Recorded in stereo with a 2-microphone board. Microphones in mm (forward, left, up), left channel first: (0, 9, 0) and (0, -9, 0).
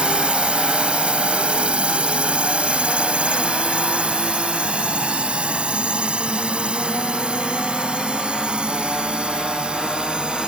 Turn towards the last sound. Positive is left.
turn(degrees=-55)  # may be behind; listen again after turning